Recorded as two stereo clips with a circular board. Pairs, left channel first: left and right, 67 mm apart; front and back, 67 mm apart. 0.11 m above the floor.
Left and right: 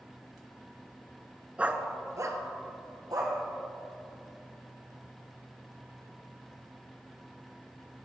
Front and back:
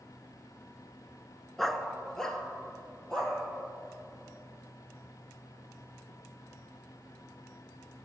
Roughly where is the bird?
I don't hear a bird.